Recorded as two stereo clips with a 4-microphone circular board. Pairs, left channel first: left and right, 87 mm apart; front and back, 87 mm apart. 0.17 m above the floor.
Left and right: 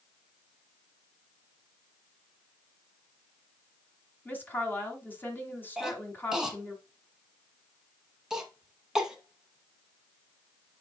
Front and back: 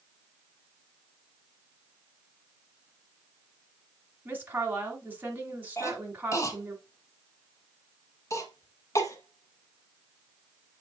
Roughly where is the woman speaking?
Behind left.